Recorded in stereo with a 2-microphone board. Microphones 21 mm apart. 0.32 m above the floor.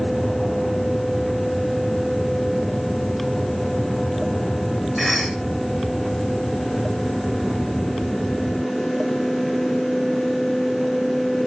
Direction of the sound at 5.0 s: Centre (ahead or behind).